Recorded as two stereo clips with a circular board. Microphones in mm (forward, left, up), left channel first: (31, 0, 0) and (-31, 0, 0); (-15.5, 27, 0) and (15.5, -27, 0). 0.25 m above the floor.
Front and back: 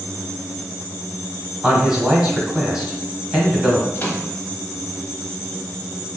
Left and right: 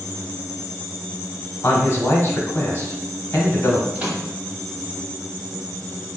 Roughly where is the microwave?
Ahead.